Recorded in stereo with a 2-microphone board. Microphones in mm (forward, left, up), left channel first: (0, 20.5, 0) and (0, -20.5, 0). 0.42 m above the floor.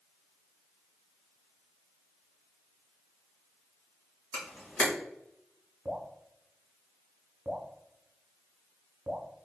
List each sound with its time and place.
4.3 s a camera shutter: 40° left (ahead or behind), 1.8 m
5.8 s dripping: 35° right (ahead or behind), 0.9 m